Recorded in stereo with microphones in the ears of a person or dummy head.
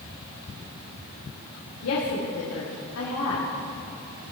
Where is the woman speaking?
80° left, 2 m.